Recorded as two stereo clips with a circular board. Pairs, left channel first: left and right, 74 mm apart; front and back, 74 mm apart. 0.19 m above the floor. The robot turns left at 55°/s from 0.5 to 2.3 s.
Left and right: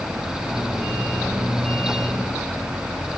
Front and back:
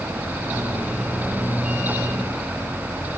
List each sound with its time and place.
Only background noise.